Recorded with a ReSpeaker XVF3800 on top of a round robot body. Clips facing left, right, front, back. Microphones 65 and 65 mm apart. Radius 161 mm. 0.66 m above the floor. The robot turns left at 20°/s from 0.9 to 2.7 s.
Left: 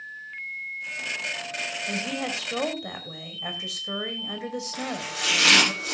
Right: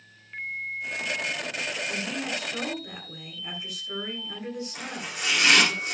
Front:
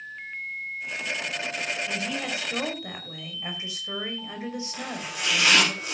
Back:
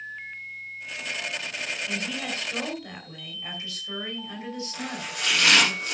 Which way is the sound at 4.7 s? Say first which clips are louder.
Left 4 dB, even; 80° left.